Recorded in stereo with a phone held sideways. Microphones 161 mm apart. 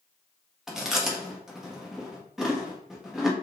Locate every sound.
0.7 s chewing: 5° right (ahead or behind), 1.4 m